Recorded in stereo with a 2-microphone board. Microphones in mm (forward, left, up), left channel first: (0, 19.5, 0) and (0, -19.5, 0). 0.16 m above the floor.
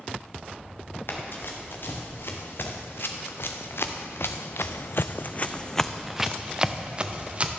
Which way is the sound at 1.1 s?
60° left (ahead or behind).